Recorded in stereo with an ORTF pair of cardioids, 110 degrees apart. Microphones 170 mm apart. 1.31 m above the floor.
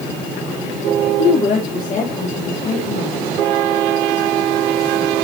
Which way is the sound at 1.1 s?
35° left.